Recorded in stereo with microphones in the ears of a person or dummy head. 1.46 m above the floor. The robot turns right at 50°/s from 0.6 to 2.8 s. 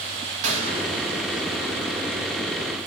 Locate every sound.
0.4 s a gunshot: 80° right, 1.4 m; by 2.1 s 10° right (ahead or behind), 1.4 m